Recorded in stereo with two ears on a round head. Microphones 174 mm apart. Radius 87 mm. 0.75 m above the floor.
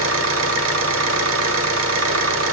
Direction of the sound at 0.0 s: 80° right.